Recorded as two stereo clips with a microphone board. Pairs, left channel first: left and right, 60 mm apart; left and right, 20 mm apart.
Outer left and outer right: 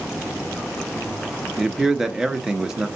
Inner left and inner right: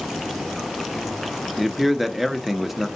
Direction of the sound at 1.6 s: 10° right (ahead or behind).